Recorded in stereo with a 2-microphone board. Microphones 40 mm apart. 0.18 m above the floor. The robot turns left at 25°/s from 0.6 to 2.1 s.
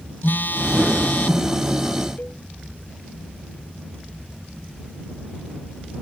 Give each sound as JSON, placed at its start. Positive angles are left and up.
{"t": 0.2, "sound": "a phone buzzing", "side_deg": 60}
{"t": 2.2, "sound": "a cowbell", "side_deg": 50}